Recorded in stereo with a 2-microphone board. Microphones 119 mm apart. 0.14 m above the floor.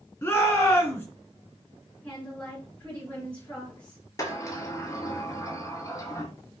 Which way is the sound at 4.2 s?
30° left (ahead or behind).